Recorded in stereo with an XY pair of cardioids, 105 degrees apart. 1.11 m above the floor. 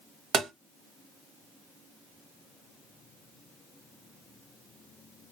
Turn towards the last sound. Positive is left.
turn(degrees=-70)